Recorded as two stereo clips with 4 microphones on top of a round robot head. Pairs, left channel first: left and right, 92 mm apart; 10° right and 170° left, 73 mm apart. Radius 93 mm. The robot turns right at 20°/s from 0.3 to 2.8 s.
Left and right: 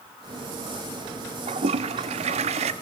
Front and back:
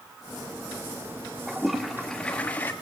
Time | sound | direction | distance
1.5 | a toilet flushing | 110° right | 0.6 m